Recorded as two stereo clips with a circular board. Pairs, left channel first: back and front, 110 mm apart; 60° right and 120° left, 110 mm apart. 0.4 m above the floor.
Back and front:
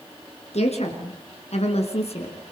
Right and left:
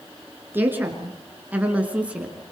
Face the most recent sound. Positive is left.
turn(degrees=-160)